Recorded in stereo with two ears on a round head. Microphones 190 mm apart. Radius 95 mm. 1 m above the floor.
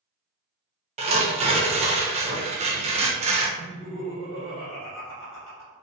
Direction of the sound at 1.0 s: 30° right (ahead or behind).